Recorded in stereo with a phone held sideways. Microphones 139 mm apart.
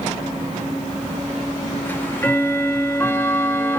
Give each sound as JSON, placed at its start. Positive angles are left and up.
{"t": 1.9, "sound": "ticking", "side_deg": 15, "distance_m": 1.1}